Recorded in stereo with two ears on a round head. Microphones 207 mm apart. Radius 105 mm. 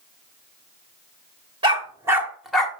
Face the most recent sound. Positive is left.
turn(degrees=5)  # may be behind; listen again after turning